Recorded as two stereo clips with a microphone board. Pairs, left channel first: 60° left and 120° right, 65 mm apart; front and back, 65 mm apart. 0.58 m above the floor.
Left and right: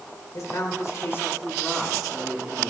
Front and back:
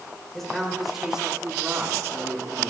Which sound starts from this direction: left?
A man speaking, at 0.3 s.